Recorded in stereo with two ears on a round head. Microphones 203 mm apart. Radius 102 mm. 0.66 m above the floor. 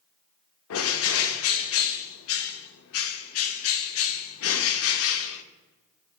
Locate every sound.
0.7 s a bird: 65° left (ahead or behind), 0.5 m